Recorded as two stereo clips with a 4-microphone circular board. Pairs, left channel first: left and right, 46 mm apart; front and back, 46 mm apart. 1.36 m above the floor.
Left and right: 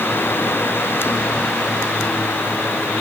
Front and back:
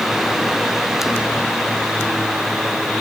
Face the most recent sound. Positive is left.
No sound to turn to.